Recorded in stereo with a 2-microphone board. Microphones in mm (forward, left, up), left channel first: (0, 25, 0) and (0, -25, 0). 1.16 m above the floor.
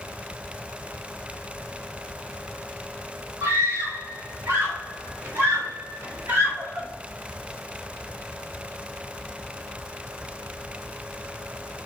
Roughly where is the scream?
Right.